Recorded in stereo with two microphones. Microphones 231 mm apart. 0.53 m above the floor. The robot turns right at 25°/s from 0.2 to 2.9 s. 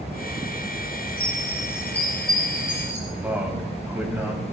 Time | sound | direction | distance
1.2 | a chime | 170° right | 3.5 m
3.1 | a man speaking | 10° right (ahead or behind) | 3 m